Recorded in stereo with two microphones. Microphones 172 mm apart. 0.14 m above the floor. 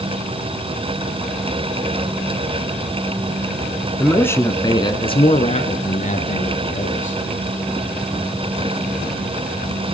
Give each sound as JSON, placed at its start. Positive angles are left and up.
{"t": 4.0, "sound": "a man speaking", "side_deg": 5, "distance_m": 1.5}